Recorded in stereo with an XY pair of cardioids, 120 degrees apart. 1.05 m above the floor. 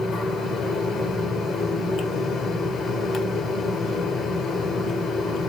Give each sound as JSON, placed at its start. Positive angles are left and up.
{"t": 0.0, "sound": "a fan", "azimuth_deg": 55, "distance_m": 1.5}